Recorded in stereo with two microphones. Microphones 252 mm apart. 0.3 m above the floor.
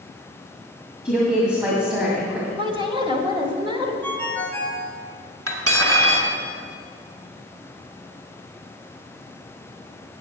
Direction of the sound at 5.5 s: 70° right (ahead or behind).